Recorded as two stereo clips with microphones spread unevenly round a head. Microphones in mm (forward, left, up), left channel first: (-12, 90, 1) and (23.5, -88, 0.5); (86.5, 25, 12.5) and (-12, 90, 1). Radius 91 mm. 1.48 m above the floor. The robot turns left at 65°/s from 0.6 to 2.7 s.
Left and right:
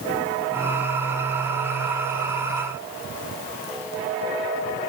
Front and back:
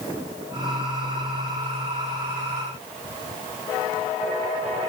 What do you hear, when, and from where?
Only background noise.